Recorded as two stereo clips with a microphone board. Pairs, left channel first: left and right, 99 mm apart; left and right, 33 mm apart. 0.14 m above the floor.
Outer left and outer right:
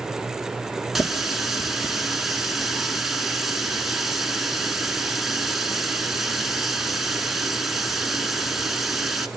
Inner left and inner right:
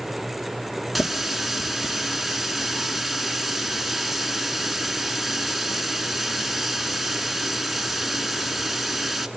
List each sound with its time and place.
0.9 s a running tap: 5° right (ahead or behind), 1.0 m